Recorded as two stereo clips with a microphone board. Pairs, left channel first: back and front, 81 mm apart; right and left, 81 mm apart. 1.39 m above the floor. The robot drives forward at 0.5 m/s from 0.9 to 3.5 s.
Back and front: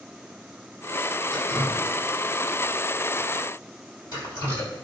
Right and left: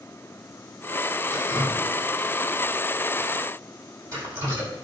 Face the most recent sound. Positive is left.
turn(degrees=150)